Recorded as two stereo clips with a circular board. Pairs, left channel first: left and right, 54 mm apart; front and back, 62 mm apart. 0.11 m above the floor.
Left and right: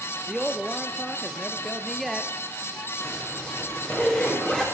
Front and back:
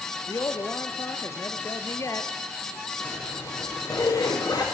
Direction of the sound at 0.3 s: 5° left.